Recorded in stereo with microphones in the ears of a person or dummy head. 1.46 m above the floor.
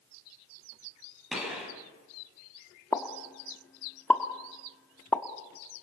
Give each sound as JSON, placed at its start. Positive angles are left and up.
{"t": 1.3, "sound": "a gunshot", "side_deg": -5, "distance_m": 8.5}
{"t": 2.9, "sound": "a pop", "side_deg": 10, "distance_m": 1.3}